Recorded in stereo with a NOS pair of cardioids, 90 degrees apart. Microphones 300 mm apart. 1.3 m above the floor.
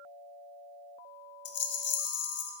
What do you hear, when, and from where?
1.4 s a rattle: 50° left, 0.6 m